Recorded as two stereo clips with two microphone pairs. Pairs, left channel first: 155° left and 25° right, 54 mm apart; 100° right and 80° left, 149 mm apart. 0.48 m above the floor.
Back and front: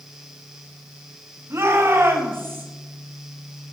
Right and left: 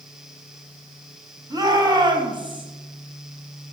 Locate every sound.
1.5 s a shout: 15° left, 4.5 m; by 2.6 s 20° left, 4.5 m